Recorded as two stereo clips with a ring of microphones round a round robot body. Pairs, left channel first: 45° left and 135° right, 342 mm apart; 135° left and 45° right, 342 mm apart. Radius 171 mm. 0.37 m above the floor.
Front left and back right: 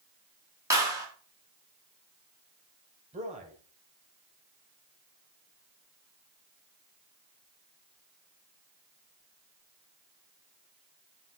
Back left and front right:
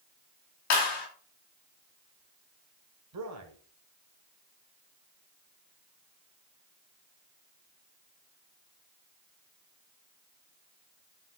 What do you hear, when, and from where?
0.7 s a clap: 145° left, 2.5 m
3.1 s a man speaking: 70° right, 1.7 m